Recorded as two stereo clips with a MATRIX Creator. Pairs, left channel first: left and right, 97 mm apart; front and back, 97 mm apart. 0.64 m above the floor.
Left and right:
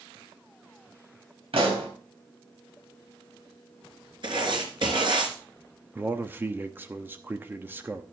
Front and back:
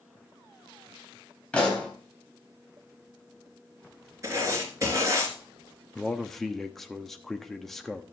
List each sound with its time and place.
1.5 s a pop: 75° right, 3.5 m
4.2 s writing: 125° right, 3 m
6.0 s a man speaking: 80° right, 0.9 m